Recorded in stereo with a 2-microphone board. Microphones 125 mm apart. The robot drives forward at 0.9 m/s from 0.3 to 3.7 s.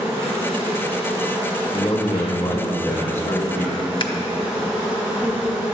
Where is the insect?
25° right (ahead or behind), 4 m; by 5.7 s 15° right (ahead or behind), 7 m.